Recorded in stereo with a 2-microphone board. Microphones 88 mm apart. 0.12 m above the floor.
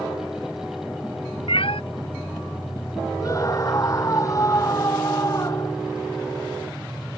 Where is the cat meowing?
75° left (ahead or behind).